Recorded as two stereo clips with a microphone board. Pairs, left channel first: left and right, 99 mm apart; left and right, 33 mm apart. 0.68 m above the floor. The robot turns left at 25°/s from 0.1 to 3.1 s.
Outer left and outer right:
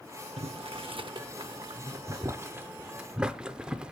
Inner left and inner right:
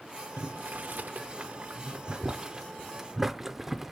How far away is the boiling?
About 0.6 m.